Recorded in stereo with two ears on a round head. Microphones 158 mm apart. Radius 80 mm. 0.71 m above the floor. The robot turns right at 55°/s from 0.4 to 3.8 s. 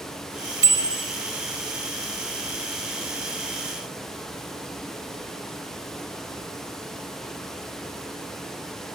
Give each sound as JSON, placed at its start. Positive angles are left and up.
{"t": 0.6, "sound": "a bicycle bell", "side_deg": -20, "distance_m": 2.5}